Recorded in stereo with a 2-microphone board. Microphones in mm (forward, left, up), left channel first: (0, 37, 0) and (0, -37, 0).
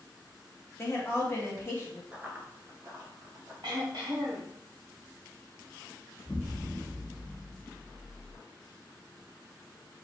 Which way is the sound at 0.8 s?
35° left (ahead or behind).